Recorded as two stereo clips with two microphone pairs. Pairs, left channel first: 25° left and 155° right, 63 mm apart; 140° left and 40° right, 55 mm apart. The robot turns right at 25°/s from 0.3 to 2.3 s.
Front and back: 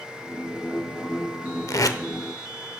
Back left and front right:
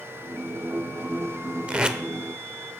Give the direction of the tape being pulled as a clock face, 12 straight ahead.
11 o'clock.